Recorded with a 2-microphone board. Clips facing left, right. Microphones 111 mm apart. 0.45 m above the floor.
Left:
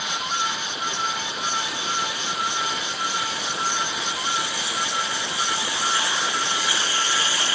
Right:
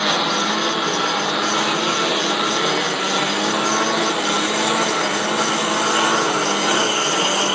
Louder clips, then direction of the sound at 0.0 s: Right 8 dB; 90° right.